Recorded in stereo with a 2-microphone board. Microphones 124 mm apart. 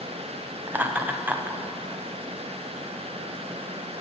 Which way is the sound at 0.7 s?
15° right (ahead or behind).